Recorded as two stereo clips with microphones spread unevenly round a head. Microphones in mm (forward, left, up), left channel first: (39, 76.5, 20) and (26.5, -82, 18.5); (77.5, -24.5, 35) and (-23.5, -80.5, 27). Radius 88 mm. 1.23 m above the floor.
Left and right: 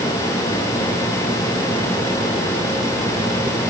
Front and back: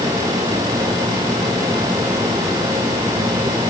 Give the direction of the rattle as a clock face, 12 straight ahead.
I don't hear a rattle.